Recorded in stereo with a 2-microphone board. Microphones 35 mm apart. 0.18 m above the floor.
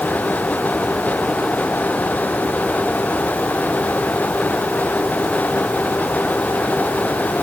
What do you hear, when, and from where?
Only background noise.